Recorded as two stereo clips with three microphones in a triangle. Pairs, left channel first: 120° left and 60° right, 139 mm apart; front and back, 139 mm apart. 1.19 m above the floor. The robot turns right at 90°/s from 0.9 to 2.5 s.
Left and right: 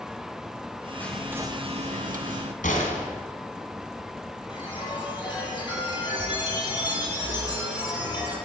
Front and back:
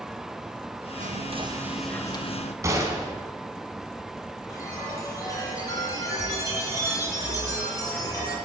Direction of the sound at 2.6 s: 115° left.